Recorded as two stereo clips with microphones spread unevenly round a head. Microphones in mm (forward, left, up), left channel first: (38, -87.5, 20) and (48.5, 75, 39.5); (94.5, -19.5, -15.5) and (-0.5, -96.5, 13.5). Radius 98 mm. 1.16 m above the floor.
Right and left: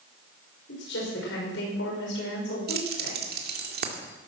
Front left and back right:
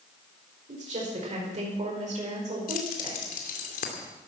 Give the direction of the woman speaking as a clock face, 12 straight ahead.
4 o'clock.